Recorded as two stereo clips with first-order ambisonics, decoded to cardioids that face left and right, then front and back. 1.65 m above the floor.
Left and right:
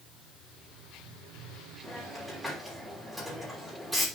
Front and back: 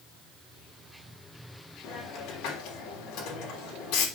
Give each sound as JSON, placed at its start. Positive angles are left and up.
{"t": 1.8, "sound": "a hiss", "azimuth_deg": -5, "distance_m": 3.0}